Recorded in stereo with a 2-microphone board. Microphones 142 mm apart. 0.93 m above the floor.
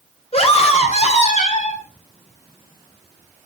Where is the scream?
45° left (ahead or behind), 4.5 m; by 1.8 s 55° left (ahead or behind), 6 m.